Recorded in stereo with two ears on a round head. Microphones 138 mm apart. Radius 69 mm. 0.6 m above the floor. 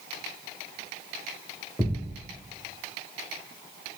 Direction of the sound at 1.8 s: 5° left (ahead or behind).